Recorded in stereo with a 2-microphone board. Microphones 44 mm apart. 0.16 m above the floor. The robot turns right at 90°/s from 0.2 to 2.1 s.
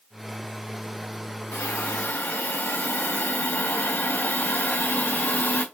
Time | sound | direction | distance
1.5 | a hiss | 70° left | 4 m